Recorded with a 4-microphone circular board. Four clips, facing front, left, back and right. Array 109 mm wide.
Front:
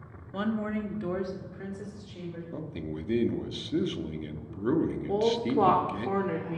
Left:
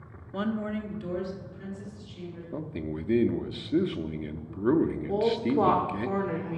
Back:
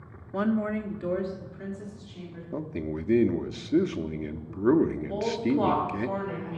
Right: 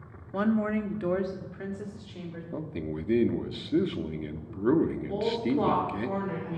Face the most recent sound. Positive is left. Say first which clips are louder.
# left 2 dB, front 1 dB
turn(degrees=35)